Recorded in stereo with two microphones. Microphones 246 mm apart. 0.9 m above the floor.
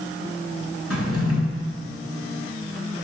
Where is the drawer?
90° left, 4 m.